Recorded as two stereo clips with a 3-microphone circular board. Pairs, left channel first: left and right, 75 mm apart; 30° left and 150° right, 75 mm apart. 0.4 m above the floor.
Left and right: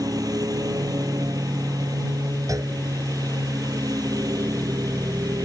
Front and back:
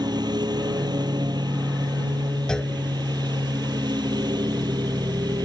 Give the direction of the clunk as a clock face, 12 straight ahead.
2 o'clock.